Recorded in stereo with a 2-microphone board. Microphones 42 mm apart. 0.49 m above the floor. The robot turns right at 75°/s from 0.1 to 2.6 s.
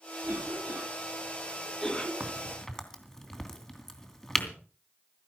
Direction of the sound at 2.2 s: 20° right (ahead or behind).